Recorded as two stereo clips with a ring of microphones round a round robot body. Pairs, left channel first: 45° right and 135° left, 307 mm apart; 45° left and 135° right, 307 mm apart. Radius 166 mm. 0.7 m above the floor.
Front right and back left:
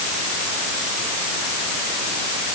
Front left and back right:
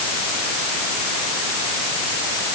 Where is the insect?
I don't hear an insect.